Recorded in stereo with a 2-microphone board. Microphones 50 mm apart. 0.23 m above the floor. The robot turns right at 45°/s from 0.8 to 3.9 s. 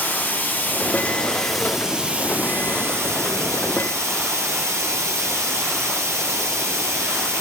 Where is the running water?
145° left, 1.4 m; by 7.4 s 75° right, 1.4 m.